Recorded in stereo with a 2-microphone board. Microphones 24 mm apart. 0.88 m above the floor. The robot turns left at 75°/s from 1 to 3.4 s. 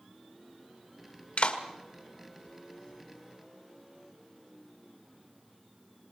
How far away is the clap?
About 1.9 m.